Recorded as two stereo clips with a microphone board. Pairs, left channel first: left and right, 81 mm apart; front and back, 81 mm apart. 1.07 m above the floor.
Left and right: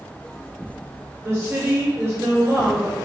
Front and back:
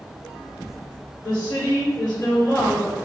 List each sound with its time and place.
1.2 s a woman speaking: 35° right, 1.6 m